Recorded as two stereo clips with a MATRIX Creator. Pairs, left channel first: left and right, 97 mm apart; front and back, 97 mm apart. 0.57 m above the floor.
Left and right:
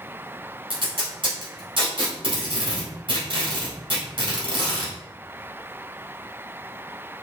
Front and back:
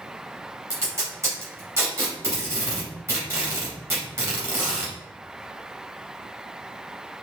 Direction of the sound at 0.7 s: 120° right.